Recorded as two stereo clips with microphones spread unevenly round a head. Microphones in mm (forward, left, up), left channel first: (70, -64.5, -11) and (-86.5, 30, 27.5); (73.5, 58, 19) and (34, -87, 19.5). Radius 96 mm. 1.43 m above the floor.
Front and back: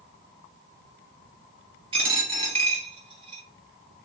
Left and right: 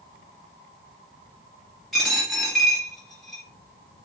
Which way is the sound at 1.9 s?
165° left.